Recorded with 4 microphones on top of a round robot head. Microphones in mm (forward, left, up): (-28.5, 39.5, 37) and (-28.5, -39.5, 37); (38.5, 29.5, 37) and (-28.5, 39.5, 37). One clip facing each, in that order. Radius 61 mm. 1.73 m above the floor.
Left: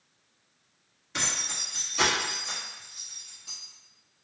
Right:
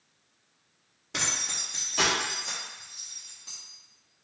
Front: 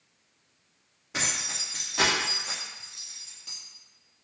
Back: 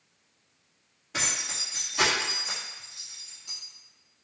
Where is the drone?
No drone in this recording.